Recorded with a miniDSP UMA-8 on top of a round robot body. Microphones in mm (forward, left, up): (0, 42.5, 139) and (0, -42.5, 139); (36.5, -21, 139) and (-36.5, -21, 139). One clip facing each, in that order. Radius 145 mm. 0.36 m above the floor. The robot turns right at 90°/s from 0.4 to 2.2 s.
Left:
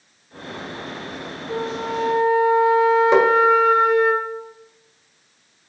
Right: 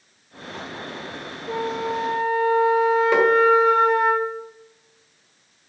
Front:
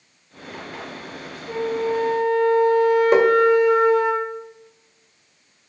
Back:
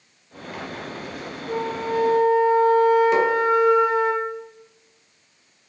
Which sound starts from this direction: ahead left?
Tapping, at 3.1 s.